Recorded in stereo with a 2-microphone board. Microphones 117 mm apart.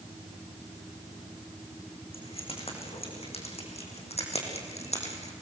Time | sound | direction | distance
2.1 | keys jangling | 55° left (ahead or behind) | 6 m